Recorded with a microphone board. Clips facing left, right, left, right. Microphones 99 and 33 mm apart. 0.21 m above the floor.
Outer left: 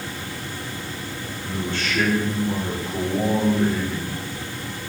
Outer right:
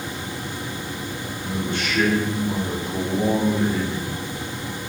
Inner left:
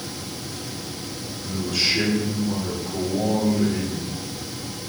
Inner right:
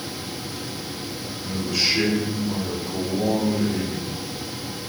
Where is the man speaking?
15° right (ahead or behind), 4 m.